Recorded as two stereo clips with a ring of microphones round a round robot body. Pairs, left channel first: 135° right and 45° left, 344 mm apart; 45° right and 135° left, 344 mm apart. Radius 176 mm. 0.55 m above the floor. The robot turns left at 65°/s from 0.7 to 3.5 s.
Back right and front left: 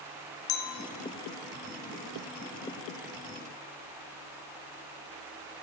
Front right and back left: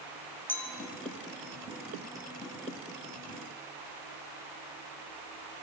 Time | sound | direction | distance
0.5 | a clink | 130° right | 0.7 m